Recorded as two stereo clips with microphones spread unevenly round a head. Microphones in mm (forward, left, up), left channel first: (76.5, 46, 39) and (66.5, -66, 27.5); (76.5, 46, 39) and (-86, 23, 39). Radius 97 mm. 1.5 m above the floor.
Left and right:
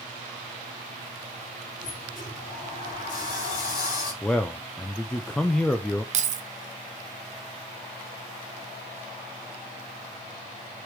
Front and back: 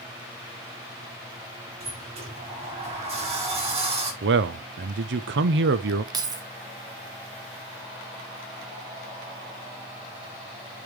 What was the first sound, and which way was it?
A sliding door, 130° left.